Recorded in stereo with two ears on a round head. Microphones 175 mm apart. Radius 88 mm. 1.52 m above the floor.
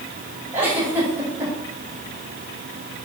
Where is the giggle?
10° right (ahead or behind), 6.5 m.